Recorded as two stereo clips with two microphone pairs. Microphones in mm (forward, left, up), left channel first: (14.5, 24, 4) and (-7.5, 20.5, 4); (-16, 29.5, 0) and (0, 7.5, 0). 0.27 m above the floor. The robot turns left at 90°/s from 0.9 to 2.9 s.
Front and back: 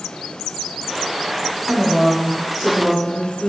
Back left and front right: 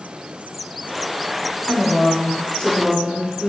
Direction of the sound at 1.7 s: 150° right.